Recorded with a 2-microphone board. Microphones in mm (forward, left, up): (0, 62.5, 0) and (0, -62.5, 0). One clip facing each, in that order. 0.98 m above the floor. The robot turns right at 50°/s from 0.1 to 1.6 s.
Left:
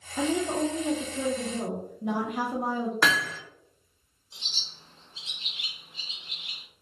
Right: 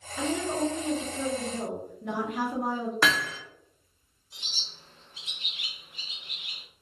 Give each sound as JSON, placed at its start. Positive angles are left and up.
{"t": 0.2, "sound": "a woman speaking", "azimuth_deg": 85, "distance_m": 0.7}
{"t": 3.0, "sound": "hammering", "side_deg": 0, "distance_m": 0.5}
{"t": 4.3, "sound": "a bird", "side_deg": 25, "distance_m": 0.7}